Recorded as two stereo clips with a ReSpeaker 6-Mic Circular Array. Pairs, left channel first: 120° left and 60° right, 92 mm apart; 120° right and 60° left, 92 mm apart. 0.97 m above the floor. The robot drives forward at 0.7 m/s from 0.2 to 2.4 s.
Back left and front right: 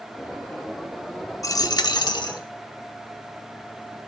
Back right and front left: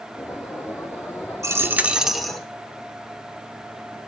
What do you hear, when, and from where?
1.4 s a dropped coin: 95° left, 0.6 m; by 2.4 s 155° left, 0.9 m